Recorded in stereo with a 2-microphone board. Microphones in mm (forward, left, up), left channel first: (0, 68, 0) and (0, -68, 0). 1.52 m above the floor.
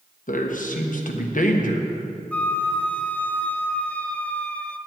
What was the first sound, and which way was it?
A man speaking, 75° left (ahead or behind).